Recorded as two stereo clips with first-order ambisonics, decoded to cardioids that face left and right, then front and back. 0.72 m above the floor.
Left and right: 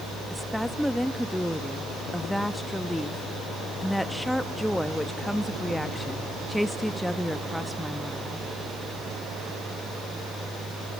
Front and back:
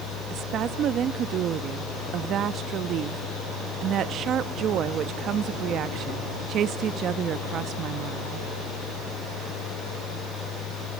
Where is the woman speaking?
175° left, 0.8 m.